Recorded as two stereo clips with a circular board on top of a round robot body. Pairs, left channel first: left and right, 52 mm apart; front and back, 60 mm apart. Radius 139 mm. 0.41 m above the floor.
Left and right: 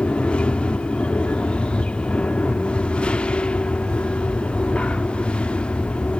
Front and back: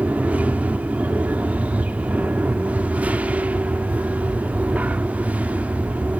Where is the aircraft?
140° left.